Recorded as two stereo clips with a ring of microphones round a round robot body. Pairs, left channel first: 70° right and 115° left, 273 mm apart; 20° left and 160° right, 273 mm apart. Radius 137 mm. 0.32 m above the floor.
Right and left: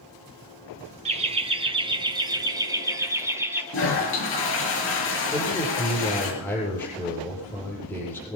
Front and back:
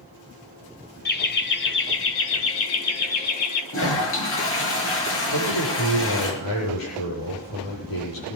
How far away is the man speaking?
About 9 m.